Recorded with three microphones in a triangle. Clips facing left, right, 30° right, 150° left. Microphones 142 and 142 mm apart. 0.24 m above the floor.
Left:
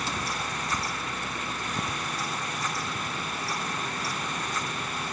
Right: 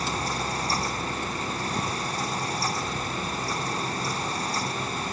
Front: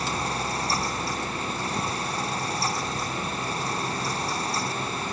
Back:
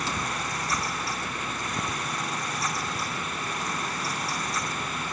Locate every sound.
Only background noise.